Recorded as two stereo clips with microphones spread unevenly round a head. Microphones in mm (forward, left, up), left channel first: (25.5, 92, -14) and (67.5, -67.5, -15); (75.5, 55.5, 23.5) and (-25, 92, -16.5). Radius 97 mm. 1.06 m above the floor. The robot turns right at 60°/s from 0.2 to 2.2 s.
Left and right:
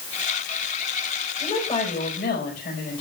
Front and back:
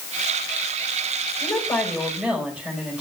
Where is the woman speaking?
30° left, 5 m; by 3.0 s 80° left, 5 m.